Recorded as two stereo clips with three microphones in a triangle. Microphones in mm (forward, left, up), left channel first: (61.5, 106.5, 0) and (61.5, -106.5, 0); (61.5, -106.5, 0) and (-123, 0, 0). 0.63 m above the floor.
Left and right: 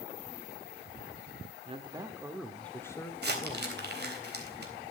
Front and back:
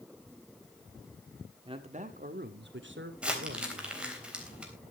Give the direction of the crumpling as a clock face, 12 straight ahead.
4 o'clock.